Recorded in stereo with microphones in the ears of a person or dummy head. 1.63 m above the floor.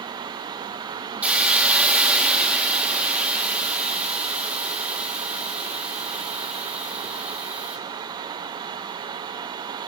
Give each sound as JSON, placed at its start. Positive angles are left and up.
{"t": 1.2, "sound": "a hiss", "side_deg": -5, "distance_m": 3.5}